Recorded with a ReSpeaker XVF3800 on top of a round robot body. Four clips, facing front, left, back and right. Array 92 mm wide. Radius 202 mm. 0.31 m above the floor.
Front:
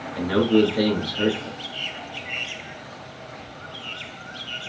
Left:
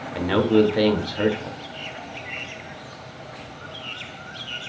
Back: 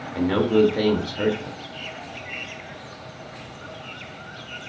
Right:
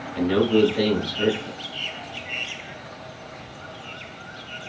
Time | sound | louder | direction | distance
0.1 | a man speaking | even, even | 105° left | 3.5 m